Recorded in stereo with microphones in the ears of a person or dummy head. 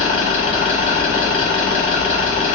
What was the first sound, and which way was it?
An engine running, 35° left (ahead or behind).